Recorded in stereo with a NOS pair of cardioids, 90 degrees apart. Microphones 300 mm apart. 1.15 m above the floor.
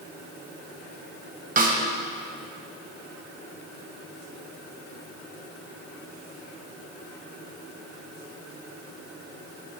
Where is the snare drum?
30° right, 1.4 m.